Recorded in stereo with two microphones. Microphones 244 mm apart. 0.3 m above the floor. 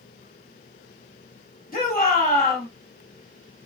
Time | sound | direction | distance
1.7 | a shout | 35° left (ahead or behind) | 1.9 m